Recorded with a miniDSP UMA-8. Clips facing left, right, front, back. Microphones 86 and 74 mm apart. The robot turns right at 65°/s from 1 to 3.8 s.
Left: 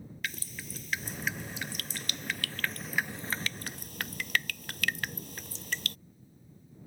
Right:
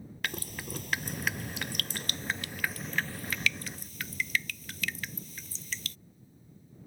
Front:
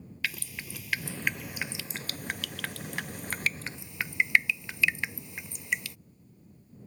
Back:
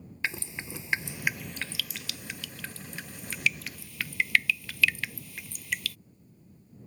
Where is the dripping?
120° right; by 6.0 s 65° left.